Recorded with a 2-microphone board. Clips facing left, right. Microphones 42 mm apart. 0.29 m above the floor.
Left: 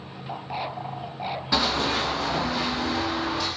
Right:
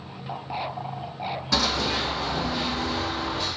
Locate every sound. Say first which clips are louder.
1.5 s running footsteps: left 1 dB; 15° left (ahead or behind), 0.6 m; by 3.5 s 75° left (ahead or behind), 1.5 m